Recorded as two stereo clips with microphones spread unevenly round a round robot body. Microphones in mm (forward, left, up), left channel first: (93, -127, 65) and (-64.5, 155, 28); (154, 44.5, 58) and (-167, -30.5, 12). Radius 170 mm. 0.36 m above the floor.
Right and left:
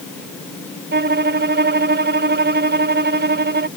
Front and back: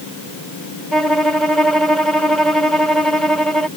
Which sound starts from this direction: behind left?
A violin, at 0.9 s.